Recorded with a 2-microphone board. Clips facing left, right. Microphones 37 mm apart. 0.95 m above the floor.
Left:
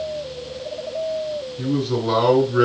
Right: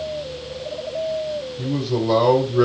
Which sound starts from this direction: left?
A man speaking, at 1.6 s.